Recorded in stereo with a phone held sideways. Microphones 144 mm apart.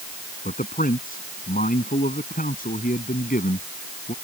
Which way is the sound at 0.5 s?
85° left.